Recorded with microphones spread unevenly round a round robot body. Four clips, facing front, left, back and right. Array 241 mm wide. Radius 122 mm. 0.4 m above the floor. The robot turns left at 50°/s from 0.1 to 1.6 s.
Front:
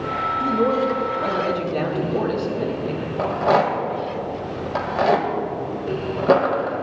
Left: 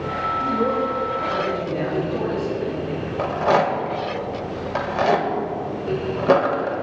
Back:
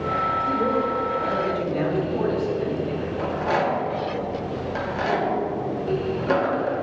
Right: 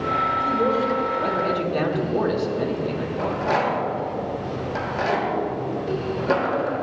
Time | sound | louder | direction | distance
0.4 | a man speaking | left 3 dB, front 7 dB | 20° left | 4 m
3.2 | a rattle | left 4 dB, front 6 dB | 35° left | 1.9 m